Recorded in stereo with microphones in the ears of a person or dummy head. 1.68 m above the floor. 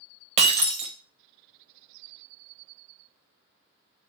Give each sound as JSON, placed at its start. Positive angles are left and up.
{"t": 0.4, "sound": "breaking glass", "side_deg": -30, "distance_m": 1.0}